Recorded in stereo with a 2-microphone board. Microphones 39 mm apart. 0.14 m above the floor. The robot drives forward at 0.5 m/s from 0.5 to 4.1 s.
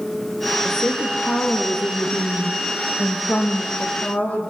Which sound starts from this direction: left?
A woman speaking, at 0.7 s.